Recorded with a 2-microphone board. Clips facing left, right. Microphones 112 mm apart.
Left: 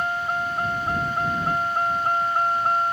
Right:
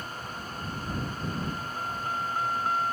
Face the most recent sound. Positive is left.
turn(degrees=45)  # may be behind; listen again after turning